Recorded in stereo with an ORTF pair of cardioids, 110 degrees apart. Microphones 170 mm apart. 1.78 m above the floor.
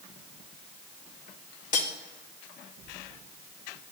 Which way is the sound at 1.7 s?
55° left.